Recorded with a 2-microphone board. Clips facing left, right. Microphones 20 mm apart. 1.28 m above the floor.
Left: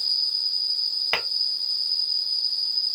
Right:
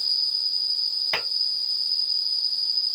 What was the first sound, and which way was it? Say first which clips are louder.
An insect: even; 40° right (ahead or behind).